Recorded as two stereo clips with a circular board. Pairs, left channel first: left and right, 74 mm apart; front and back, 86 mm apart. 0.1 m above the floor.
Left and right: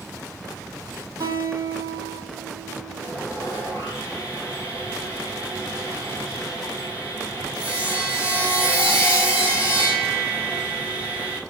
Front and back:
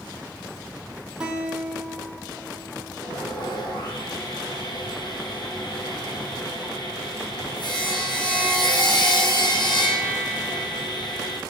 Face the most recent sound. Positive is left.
turn(degrees=-20)